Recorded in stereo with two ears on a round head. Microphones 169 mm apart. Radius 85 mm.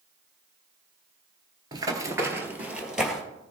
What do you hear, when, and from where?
1.7 s running footsteps: 20° right (ahead or behind), 1.2 m; by 3.2 s centre (ahead or behind), 1.6 m